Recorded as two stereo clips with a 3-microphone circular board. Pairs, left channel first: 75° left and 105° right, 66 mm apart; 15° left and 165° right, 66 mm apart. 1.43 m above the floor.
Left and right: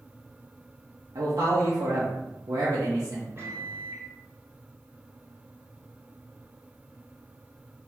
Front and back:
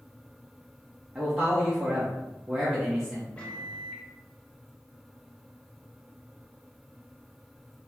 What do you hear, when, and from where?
1.1 s a man speaking: 95° right, 1.0 m
3.4 s a microwave: 60° right, 1.2 m